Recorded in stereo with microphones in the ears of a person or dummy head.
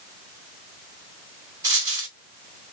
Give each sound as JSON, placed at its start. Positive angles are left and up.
{"t": 1.6, "sound": "a dropped coin", "side_deg": -10, "distance_m": 1.9}